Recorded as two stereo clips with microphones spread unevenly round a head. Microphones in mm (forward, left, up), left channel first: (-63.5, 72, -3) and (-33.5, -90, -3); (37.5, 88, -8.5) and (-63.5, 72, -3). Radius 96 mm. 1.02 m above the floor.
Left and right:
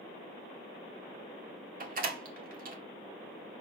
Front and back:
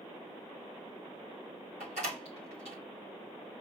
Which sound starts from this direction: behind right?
A door slam, at 1.8 s.